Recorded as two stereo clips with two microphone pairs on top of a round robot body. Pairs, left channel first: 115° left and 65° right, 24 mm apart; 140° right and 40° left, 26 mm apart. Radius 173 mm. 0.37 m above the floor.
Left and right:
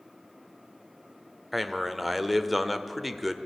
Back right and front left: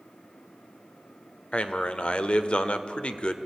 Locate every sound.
1.5 s a man speaking: 155° right, 1.5 m